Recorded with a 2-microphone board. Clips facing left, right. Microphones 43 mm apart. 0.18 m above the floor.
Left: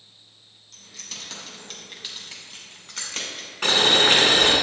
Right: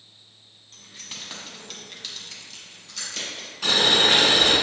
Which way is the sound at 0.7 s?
30° right (ahead or behind).